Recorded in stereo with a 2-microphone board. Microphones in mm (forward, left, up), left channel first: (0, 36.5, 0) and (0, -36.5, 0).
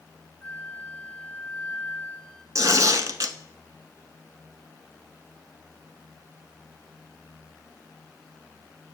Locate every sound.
0.4 s a flute: 25° left (ahead or behind), 1.1 m
2.5 s tearing paper: 50° right (ahead or behind), 0.7 m